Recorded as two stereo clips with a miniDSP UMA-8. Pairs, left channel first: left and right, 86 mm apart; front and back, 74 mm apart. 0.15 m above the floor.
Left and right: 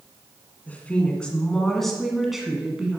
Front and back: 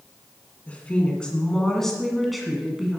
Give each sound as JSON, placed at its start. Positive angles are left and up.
{"t": 0.7, "sound": "a woman speaking", "azimuth_deg": 45, "distance_m": 1.8}